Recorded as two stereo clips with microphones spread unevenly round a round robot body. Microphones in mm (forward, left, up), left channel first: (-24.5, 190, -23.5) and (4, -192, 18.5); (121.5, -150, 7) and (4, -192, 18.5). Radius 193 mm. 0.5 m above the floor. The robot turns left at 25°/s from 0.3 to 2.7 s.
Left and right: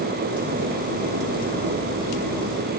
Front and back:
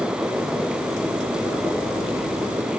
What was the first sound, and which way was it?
Only background noise.